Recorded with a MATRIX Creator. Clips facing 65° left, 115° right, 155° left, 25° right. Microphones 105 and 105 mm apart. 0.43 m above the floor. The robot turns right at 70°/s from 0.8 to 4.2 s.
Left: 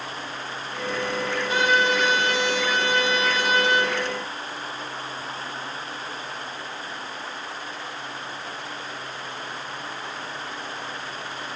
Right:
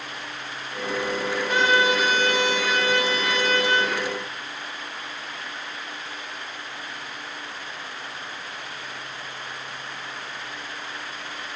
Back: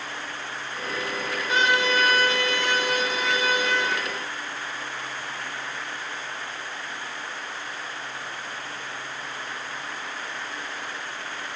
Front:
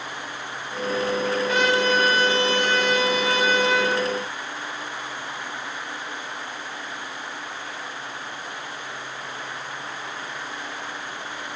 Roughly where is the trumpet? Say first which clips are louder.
Right 1 dB, even; behind right.